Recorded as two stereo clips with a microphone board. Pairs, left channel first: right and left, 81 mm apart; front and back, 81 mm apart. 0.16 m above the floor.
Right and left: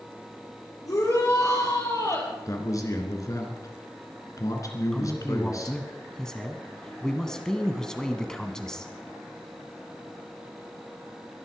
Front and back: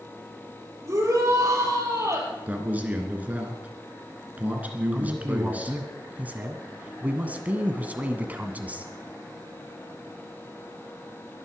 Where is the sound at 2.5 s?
115° right, 2.5 m.